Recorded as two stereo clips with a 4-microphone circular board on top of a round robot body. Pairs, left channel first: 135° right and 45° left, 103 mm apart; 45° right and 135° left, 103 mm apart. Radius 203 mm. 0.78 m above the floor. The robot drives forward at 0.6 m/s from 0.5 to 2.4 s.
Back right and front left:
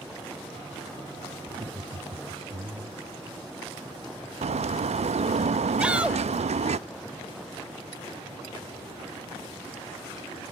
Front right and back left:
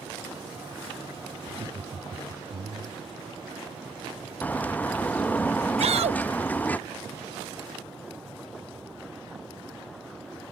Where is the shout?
125° left.